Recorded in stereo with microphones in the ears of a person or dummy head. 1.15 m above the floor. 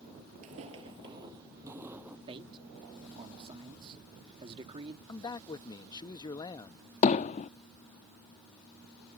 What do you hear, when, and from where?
0.4 s footsteps: 40° right (ahead or behind); by 2.2 s 10° right (ahead or behind)
2.3 s a man speaking: 30° right (ahead or behind)
5.1 s a man speaking: 25° left (ahead or behind)
7.0 s hammering: 35° left (ahead or behind)